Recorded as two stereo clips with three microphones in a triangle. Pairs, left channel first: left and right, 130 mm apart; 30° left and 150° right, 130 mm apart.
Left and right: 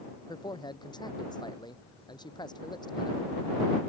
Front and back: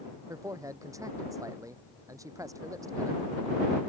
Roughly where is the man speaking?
Behind left.